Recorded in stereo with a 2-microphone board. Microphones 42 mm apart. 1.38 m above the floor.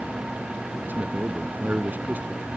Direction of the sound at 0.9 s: 40° right (ahead or behind).